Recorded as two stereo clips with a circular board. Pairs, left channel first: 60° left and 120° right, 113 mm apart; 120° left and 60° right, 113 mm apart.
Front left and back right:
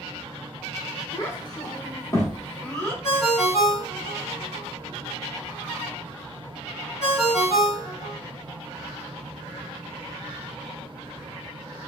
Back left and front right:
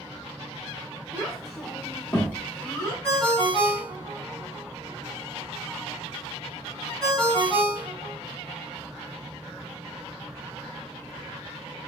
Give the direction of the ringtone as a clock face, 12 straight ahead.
11 o'clock.